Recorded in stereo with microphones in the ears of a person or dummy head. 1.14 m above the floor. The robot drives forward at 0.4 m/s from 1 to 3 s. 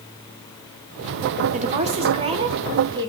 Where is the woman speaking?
40° right (ahead or behind), 1.1 m; by 3.1 s 25° right (ahead or behind), 1.6 m.